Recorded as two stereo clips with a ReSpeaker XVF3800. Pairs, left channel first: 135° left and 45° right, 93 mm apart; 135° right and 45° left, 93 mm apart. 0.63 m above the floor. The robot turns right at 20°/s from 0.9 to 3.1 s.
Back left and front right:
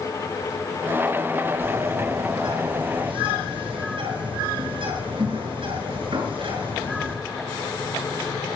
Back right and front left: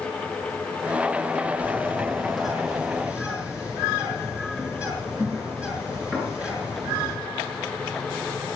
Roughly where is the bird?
Ahead right.